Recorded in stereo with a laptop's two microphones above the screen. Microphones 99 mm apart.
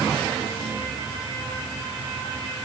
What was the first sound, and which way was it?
Only background noise.